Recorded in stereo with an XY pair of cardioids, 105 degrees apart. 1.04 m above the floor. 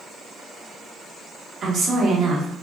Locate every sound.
1.6 s a woman speaking: 55° right, 1.5 m